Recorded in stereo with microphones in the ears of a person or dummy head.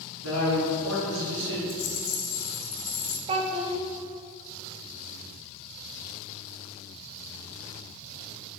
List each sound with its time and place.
0.2 s a man speaking: 90° right, 2.5 m; by 1.6 s 65° right (ahead or behind), 1.6 m
1.7 s a rattle: 75° left (ahead or behind), 2.5 m
3.3 s a child speaking: 30° right (ahead or behind), 0.6 m